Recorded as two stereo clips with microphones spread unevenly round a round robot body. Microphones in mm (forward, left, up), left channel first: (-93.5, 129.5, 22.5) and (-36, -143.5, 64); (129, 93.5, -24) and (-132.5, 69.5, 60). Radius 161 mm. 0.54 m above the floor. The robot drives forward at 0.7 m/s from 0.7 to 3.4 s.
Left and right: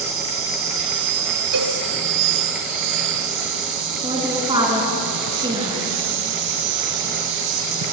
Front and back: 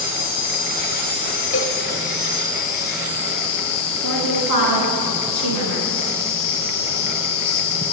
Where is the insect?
45° right, 4 m; by 7.9 s 70° right, 3 m.